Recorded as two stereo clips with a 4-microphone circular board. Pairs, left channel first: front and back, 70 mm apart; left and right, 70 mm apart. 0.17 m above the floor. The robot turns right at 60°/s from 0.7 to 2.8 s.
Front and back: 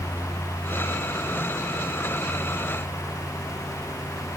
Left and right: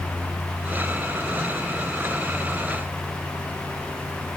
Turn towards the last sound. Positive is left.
No sound to turn to.